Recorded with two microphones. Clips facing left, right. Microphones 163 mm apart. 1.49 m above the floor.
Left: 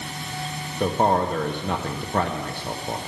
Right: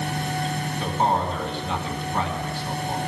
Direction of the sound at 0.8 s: 50° left (ahead or behind).